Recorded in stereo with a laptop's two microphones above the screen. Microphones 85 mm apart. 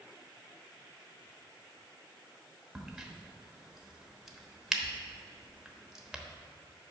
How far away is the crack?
About 0.9 m.